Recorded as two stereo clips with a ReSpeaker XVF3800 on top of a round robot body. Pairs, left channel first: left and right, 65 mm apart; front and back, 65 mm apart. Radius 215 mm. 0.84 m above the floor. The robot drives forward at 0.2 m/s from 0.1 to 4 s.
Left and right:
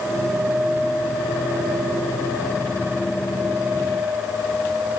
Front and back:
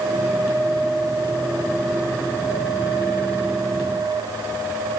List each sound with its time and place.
Only background noise.